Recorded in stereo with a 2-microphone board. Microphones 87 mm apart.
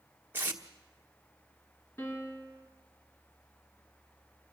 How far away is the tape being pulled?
About 1.3 m.